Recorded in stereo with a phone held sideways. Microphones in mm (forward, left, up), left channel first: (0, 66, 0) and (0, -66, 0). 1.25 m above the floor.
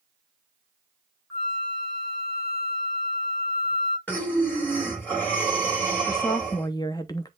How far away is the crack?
I don't hear a crack.